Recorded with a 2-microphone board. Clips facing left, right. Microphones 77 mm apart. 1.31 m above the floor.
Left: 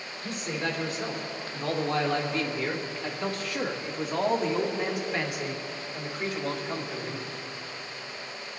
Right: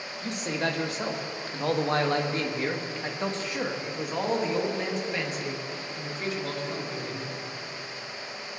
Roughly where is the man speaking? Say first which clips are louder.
Right 2 dB; right.